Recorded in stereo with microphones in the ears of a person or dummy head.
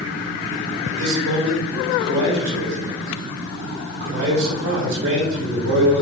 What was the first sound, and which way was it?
A man speaking, 50° right (ahead or behind).